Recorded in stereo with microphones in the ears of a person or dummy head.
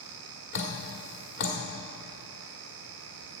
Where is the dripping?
45° left (ahead or behind), 1.7 m.